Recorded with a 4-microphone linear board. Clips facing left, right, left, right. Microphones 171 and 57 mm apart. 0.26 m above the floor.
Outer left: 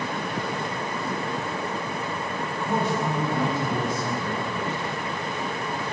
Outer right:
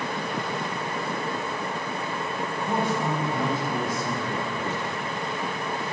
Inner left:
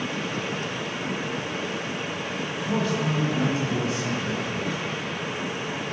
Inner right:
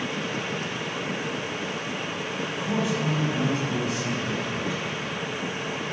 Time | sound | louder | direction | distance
2.5 | a man speaking | outer left 1 dB, inner left 1 dB | 25° right (ahead or behind) | 2 m